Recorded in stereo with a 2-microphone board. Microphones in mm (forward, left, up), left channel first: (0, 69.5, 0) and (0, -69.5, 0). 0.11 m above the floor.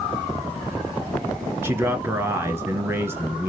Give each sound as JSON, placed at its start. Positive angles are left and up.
{"t": 1.6, "sound": "a man speaking", "side_deg": -20, "distance_m": 1.3}